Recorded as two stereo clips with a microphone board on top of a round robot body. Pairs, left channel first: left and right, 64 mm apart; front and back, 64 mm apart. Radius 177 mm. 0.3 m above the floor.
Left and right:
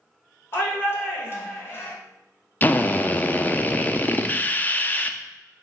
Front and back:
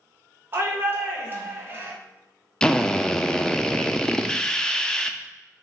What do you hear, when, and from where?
0.5 s a shout: 135° left, 1.6 m
2.6 s a drill: 65° left, 0.6 m